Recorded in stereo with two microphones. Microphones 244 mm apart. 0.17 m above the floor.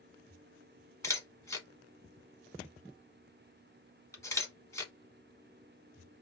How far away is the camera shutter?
About 1.0 m.